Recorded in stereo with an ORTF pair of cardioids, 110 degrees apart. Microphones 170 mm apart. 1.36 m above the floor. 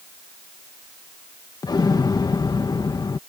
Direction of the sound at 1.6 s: 25° left.